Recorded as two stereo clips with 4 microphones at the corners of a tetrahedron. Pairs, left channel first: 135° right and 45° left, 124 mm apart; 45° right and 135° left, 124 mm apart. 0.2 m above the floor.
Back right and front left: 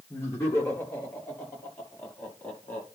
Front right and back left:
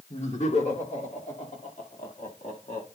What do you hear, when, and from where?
0.1 s laughter: 65° right, 5 m; by 2.9 s 55° right, 6.5 m